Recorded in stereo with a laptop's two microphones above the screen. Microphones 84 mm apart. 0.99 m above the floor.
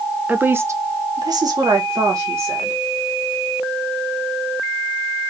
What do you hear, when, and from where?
0.3 s a woman speaking: 20° right (ahead or behind), 0.7 m; by 2.8 s 35° right (ahead or behind), 1.4 m